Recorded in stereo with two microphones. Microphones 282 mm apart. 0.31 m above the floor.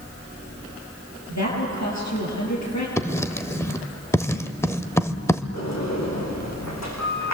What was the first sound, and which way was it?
A woman speaking, 75° left (ahead or behind).